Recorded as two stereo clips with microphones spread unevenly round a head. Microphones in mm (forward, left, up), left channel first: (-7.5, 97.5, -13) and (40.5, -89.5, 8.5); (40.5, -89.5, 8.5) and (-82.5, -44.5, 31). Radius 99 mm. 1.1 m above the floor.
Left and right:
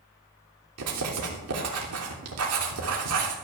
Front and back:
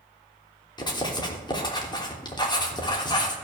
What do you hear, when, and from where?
0.8 s writing: 75° right, 3 m